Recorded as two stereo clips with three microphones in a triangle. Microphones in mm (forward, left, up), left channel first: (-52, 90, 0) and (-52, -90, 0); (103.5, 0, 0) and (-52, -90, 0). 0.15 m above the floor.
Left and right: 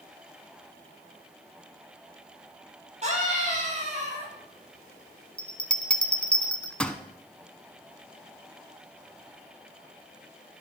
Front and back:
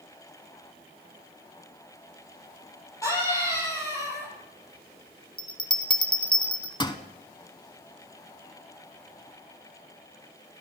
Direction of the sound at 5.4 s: 15° left.